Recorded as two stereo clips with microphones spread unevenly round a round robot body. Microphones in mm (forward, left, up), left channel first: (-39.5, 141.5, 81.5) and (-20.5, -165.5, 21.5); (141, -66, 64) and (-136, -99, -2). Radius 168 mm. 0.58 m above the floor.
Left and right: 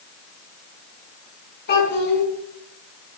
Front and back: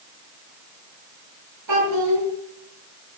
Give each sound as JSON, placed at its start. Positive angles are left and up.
{"t": 1.7, "sound": "a child speaking", "azimuth_deg": 150, "distance_m": 4.0}